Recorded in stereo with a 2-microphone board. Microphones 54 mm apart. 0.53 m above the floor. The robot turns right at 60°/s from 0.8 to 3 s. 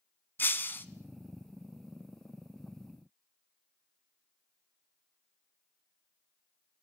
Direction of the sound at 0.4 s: 40° left (ahead or behind).